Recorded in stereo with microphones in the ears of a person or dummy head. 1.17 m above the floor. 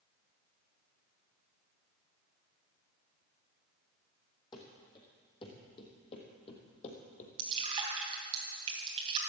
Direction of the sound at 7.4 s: 30° right (ahead or behind).